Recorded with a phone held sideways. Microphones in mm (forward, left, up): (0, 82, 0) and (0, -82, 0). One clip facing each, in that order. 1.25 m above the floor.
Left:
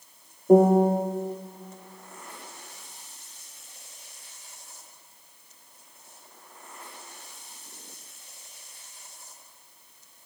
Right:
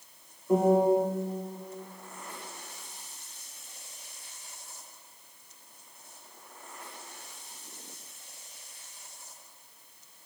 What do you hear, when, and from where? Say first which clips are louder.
0.5 s a piano: left 5 dB; 45° left (ahead or behind), 0.6 m